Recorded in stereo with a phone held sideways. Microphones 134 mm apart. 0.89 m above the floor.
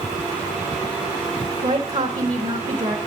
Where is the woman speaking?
65° right (ahead or behind), 1.4 m.